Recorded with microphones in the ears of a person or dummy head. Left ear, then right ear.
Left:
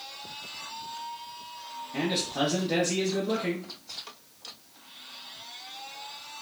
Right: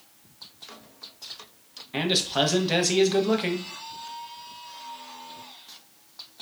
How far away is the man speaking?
About 0.6 m.